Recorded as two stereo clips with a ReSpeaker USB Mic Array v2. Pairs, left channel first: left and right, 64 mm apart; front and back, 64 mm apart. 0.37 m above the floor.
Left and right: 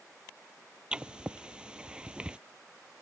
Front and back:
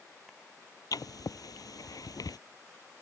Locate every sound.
0.9 s writing: 15° right